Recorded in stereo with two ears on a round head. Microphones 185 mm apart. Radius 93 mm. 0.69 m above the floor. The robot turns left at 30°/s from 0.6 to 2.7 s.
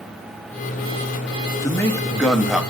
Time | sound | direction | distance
1.6 | a man speaking | 15° left (ahead or behind) | 0.6 m